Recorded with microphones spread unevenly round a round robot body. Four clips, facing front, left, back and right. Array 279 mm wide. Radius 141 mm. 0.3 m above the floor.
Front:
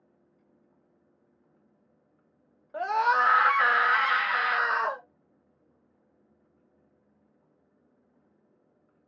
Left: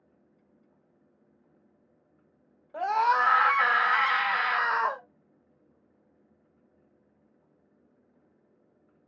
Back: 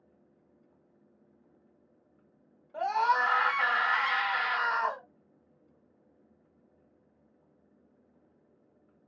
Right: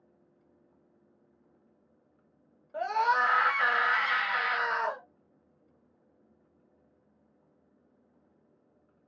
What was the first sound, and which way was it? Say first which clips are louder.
A scream: left 3 dB, front 2 dB; 5° right.